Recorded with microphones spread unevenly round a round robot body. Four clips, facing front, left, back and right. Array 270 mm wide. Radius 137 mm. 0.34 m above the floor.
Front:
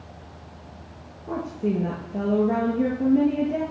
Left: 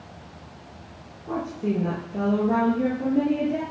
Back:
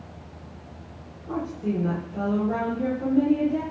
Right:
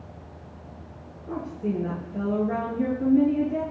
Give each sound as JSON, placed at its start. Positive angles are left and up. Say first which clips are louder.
{"t": 1.3, "sound": "a woman speaking", "louder": "left 3 dB, front 2 dB", "azimuth_deg": 25, "distance_m": 7.5}